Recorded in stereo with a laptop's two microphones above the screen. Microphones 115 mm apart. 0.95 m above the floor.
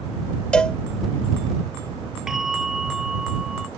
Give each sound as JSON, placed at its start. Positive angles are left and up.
{"t": 0.5, "sound": "a cowbell", "side_deg": 10}
{"t": 2.3, "sound": "a bell", "side_deg": -5}